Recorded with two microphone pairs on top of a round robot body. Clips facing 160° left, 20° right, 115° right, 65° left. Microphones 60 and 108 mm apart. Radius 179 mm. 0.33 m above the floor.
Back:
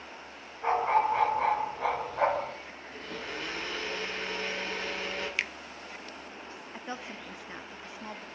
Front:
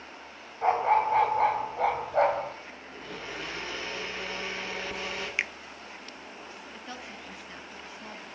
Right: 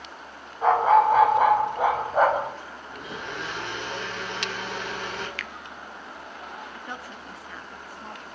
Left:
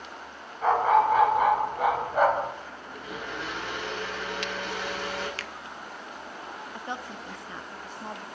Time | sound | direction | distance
0.6 | a dog barking | 55° right | 4.5 m
2.9 | a blender | 105° right | 8 m
5.4 | a finger snap | 30° left | 0.8 m
6.7 | a woman speaking | 120° left | 0.9 m